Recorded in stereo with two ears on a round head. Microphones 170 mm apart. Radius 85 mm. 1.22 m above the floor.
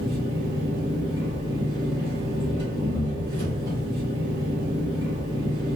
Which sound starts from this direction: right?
An engine running, at 0.0 s.